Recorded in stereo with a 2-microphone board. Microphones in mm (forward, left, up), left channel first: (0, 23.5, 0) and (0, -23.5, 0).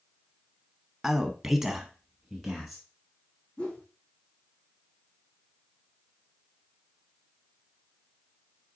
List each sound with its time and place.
1.0 s a man speaking: 5° right (ahead or behind), 1.2 m
3.6 s a whoosh: 20° left (ahead or behind), 5 m